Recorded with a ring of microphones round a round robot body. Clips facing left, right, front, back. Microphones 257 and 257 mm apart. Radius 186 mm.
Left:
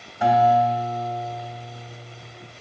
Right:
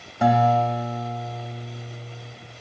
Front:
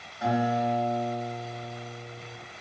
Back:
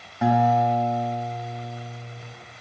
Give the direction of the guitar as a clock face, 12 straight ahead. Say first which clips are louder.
Left 1 dB, back 5 dB; 4 o'clock.